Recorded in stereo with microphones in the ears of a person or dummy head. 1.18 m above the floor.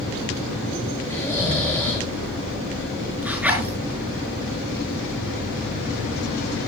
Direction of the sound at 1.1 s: 15° left (ahead or behind).